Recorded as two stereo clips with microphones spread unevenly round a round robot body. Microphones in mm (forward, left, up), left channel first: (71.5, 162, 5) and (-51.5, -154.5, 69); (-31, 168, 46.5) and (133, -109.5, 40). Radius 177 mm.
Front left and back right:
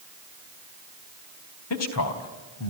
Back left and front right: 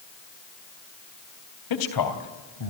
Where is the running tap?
No running tap in this recording.